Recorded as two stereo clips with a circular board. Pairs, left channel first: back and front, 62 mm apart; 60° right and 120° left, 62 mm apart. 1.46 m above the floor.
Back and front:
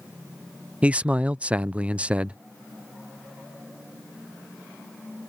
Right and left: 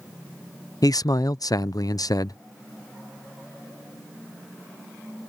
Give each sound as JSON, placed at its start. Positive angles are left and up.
{"t": 0.8, "sound": "a man speaking", "azimuth_deg": -70}